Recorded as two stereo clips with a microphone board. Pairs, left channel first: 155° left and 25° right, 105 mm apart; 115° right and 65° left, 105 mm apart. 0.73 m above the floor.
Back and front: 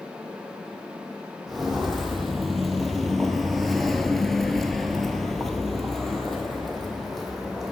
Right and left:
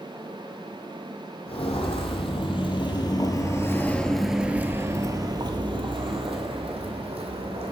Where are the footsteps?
110° right, 1.6 m; by 7.7 s 70° left, 1.9 m.